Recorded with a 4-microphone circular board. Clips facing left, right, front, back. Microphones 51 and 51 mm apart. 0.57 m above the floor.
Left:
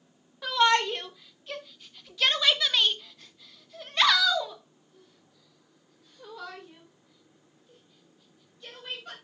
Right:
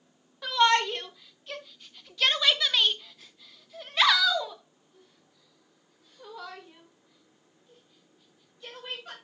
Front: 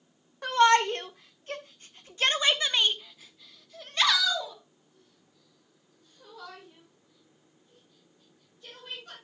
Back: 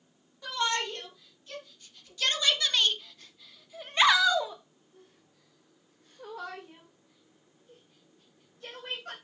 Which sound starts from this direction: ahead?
A shout, at 0.4 s.